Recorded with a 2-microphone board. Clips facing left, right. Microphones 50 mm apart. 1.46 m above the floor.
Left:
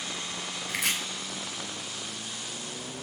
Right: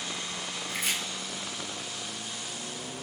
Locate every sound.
0.7 s chopping: 75° left (ahead or behind), 3 m